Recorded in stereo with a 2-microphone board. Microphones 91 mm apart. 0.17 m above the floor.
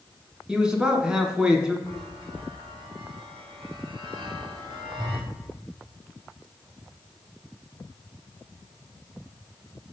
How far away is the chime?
About 3 m.